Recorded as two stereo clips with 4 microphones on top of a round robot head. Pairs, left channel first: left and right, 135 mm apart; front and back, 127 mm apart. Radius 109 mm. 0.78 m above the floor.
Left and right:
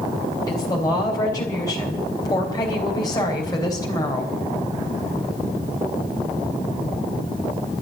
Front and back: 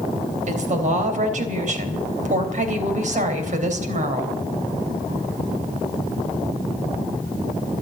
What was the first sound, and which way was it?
A woman speaking, 160° left.